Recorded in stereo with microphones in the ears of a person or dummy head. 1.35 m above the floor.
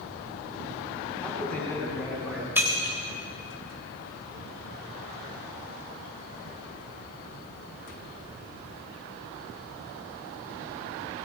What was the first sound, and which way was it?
A man speaking, 5° left (ahead or behind).